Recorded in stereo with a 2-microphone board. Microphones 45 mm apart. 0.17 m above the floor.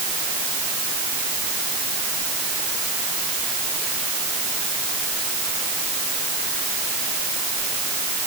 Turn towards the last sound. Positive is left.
No sound to turn to.